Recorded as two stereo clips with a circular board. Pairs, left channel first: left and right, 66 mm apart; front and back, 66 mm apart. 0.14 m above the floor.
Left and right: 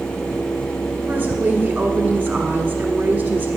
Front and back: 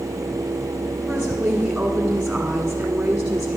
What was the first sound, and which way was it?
A woman speaking, 120° right.